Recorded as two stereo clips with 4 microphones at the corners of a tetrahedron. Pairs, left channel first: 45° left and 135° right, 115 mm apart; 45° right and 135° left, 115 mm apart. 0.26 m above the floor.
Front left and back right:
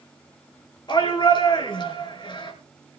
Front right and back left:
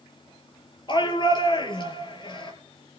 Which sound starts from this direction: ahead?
A shout, at 0.9 s.